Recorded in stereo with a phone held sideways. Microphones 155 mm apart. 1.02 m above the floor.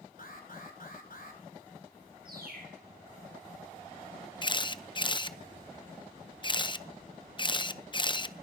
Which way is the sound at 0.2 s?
65° left (ahead or behind).